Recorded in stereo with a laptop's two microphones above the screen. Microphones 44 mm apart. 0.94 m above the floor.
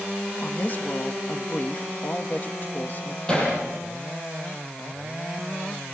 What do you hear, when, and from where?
0.4 s a woman speaking: 40° left (ahead or behind), 1.5 m
3.3 s hammering: 20° left (ahead or behind), 9.5 m